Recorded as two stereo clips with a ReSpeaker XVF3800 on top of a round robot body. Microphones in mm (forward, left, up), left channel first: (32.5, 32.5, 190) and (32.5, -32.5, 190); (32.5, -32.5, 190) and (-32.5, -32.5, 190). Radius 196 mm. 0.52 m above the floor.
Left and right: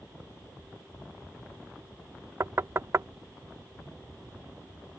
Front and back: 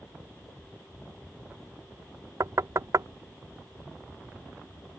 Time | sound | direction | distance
2.4 | knocking | 140° right | ?